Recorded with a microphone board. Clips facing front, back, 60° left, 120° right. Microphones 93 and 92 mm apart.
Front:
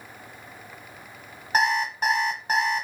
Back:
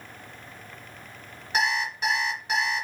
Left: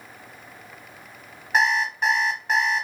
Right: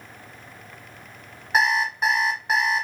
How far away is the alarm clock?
About 1.2 m.